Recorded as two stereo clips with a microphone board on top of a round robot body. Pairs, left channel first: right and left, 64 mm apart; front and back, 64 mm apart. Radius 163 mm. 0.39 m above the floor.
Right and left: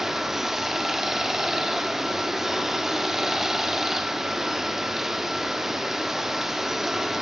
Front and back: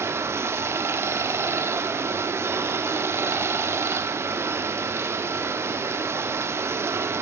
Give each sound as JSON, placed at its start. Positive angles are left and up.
{"t": 0.0, "sound": "running water", "azimuth_deg": 175, "distance_m": 0.9}